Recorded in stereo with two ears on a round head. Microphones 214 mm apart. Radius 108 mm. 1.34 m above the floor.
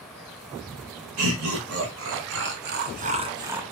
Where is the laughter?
65° right (ahead or behind), 1.5 m; by 3.6 s 5° right (ahead or behind), 0.6 m.